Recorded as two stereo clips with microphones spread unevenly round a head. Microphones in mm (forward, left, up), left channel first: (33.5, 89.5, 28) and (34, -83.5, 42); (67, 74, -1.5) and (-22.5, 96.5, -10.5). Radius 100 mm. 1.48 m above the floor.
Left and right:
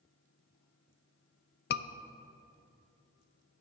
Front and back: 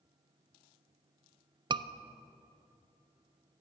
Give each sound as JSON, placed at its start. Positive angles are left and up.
{"t": 1.7, "sound": "a scream", "azimuth_deg": 125, "distance_m": 0.6}